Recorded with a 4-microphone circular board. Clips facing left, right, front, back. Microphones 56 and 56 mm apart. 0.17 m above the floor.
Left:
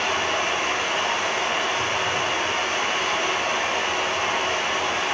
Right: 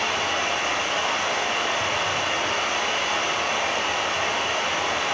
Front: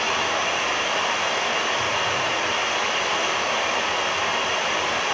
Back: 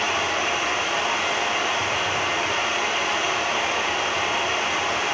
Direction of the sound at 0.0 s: 25° left.